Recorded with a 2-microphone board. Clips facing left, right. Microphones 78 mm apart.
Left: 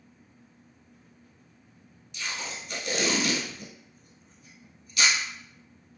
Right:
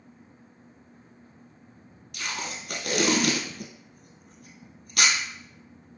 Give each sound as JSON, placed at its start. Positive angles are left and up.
{"t": 2.1, "sound": "tape being pulled", "side_deg": -65, "distance_m": 1.2}